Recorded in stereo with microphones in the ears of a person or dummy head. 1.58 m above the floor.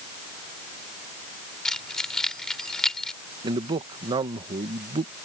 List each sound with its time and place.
1.6 s keys jangling: centre (ahead or behind)
3.4 s a man speaking: 25° right (ahead or behind)